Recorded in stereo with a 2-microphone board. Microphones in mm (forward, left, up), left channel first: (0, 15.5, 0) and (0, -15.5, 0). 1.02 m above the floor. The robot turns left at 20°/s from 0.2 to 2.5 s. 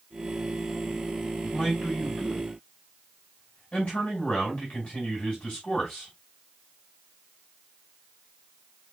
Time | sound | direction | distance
1.4 | a man speaking | 15° left (ahead or behind) | 6.5 m